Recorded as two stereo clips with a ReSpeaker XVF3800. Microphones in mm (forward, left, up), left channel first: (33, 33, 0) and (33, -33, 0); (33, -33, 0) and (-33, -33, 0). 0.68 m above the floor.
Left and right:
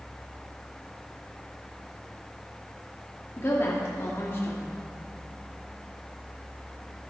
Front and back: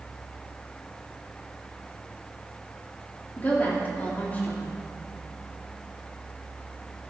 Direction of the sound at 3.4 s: 55° left.